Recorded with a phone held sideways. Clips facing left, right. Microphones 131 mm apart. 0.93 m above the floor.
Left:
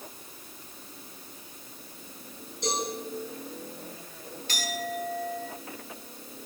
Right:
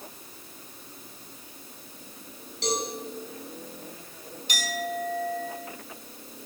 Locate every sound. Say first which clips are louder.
2.6 s a cowbell: right 2 dB; 85° right, 4.5 m
4.5 s a clink: right 2 dB; 20° right (ahead or behind), 5 m